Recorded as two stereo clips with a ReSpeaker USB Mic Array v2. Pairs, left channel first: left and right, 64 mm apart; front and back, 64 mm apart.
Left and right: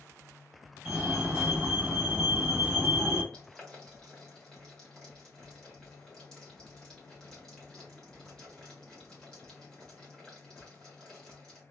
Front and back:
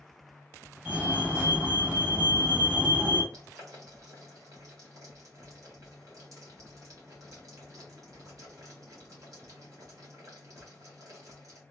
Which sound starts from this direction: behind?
Boiling, at 3.3 s.